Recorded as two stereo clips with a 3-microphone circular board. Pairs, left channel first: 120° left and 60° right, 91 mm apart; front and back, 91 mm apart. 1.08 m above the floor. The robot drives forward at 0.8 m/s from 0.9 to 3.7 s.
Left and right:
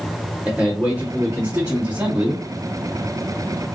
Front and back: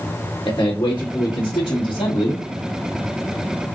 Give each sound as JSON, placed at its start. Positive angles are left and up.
{"t": 0.5, "sound": "a man speaking", "azimuth_deg": 5, "distance_m": 2.0}